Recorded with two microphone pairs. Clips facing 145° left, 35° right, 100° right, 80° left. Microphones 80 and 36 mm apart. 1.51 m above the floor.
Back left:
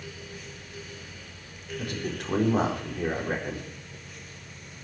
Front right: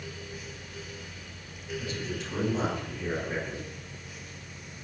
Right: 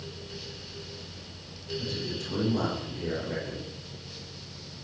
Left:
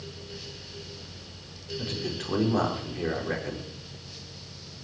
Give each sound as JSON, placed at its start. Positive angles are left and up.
{"t": 1.8, "sound": "a man speaking", "azimuth_deg": 115, "distance_m": 4.5}